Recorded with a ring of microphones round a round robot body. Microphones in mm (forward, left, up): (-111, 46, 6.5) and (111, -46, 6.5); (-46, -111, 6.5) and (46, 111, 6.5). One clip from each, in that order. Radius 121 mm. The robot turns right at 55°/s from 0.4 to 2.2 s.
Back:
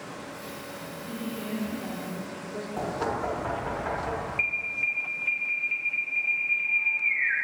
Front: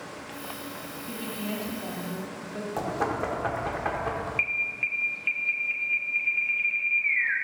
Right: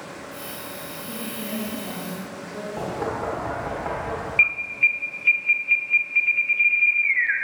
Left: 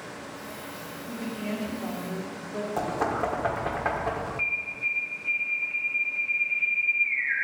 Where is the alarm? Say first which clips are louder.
Even, right 11 dB; 90° right, 1.0 m.